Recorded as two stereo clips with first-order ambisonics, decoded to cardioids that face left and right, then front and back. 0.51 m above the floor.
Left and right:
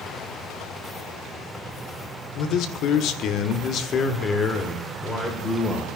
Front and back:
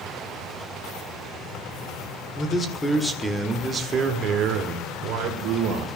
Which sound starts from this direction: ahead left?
A man speaking, at 2.4 s.